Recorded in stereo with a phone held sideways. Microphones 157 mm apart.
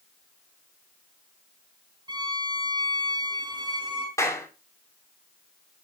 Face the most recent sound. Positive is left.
turn(degrees=20)  # may be behind; listen again after turning